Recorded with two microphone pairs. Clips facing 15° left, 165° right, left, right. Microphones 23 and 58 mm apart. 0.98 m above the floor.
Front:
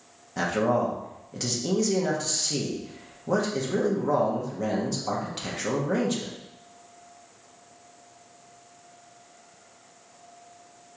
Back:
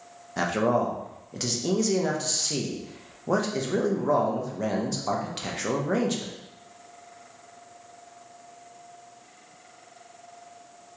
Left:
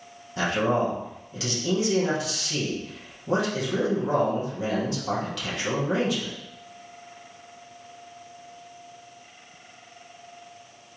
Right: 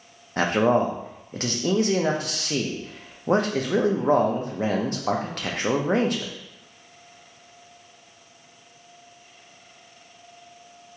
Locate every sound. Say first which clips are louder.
0.4 s a man speaking: even, right 4 dB; 95° right, 0.7 m